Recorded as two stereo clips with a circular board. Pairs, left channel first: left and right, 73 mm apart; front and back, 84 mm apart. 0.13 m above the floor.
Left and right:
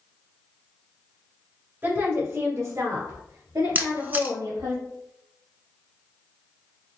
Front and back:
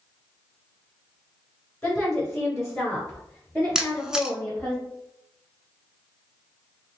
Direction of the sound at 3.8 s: 105° right.